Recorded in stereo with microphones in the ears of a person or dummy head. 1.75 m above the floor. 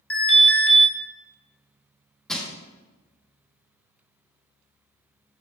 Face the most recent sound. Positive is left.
turn(degrees=0)  # may be behind; listen again after turning